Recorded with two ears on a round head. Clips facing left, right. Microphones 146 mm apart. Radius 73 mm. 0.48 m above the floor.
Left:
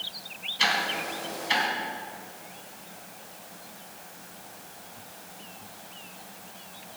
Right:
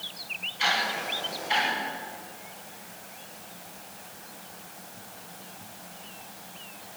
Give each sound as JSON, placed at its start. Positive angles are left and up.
{"t": 0.6, "sound": "ticking", "side_deg": 70, "distance_m": 3.5}